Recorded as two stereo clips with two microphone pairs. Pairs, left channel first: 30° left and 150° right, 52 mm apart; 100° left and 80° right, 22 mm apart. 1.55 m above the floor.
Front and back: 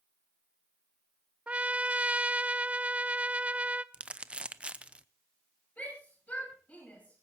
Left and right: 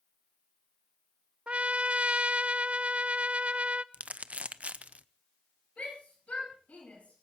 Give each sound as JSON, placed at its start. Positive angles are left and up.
{"t": 1.5, "sound": "a trumpet", "azimuth_deg": -90, "distance_m": 0.6}
{"t": 3.9, "sound": "crumpling", "azimuth_deg": -85, "distance_m": 0.7}
{"t": 5.8, "sound": "a shout", "azimuth_deg": 85, "distance_m": 10.0}